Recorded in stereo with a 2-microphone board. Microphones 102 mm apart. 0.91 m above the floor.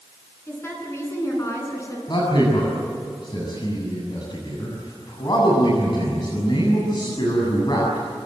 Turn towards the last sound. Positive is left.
turn(degrees=45)  # may be behind; listen again after turning